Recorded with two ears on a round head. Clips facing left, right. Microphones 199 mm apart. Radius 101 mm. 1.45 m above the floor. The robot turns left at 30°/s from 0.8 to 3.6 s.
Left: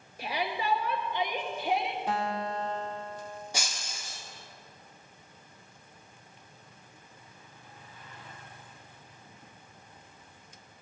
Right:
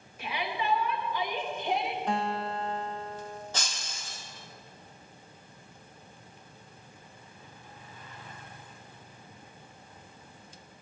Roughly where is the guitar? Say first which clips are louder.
Right 1 dB; ahead.